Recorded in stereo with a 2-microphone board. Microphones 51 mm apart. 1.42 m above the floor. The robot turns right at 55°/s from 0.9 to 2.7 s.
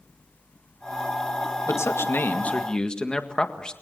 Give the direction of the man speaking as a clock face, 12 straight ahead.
8 o'clock.